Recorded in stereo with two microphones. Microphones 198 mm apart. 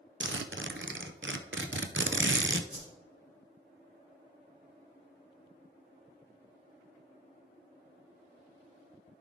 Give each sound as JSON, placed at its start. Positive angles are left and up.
{"t": 0.2, "sound": "a zipper", "side_deg": -75, "distance_m": 0.6}
{"t": 2.7, "sound": "a whoosh", "side_deg": -60, "distance_m": 2.0}